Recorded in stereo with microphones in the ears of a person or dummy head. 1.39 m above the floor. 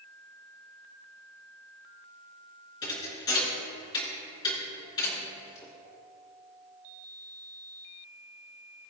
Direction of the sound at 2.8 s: 25° left (ahead or behind).